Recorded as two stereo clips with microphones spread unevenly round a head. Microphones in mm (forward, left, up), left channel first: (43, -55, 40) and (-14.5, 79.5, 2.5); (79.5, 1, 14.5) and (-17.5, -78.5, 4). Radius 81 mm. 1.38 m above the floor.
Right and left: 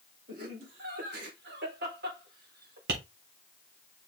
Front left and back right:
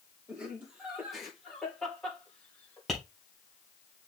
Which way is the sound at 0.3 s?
140° left.